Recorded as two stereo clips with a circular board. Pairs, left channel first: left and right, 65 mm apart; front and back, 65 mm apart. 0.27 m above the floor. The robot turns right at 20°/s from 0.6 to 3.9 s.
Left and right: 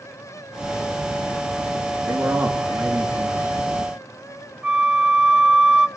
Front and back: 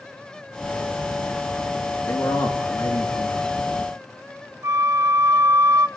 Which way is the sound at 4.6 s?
165° right.